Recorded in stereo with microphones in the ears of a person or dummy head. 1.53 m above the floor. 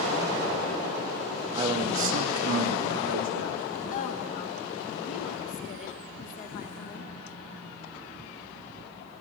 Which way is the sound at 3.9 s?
45° left (ahead or behind).